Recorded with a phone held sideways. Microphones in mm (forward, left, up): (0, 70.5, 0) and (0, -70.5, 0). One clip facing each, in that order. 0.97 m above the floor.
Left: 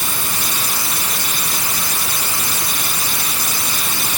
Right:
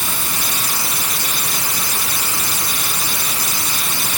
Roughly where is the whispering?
I don't hear whispering.